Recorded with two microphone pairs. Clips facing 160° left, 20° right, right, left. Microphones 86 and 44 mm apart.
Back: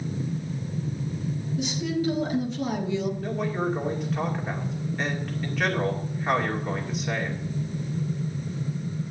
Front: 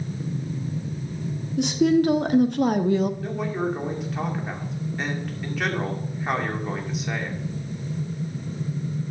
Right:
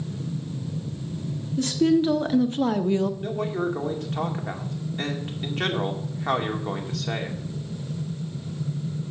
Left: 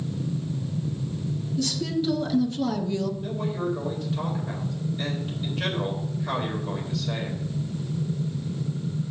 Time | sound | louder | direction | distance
1.6 | a woman speaking | front 10 dB, right 8 dB | 40° right | 1.3 m
3.2 | a man speaking | front 1 dB, right 2 dB | 110° right | 2.5 m